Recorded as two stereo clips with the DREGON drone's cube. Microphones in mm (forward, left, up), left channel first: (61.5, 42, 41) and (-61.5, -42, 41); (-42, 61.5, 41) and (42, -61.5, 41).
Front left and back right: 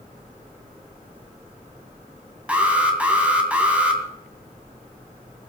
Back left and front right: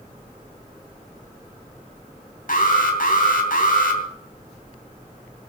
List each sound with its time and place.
2.5 s an alarm: 135° left, 3 m